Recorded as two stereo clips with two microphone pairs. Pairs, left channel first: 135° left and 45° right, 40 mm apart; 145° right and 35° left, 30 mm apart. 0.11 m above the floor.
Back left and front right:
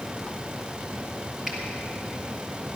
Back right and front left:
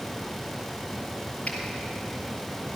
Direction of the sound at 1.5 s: 120° right.